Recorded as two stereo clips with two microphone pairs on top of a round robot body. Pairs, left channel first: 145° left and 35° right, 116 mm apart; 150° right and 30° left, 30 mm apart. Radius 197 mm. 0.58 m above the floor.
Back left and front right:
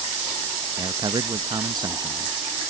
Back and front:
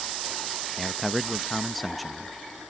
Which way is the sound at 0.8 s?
50° right.